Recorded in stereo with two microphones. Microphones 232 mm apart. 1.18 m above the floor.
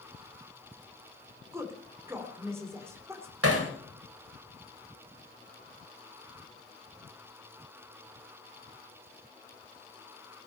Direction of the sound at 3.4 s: 75° right (ahead or behind).